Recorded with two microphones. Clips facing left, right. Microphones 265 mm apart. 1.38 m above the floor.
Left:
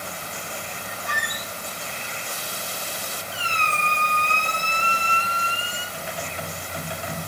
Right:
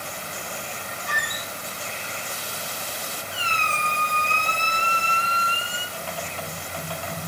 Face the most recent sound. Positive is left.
turn(degrees=20)  # may be behind; listen again after turning